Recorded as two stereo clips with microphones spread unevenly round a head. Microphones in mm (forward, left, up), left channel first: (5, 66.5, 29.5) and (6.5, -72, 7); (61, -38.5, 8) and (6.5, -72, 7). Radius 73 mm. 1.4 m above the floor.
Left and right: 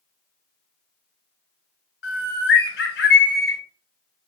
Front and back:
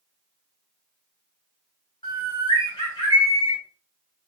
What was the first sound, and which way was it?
A bird, 80° left.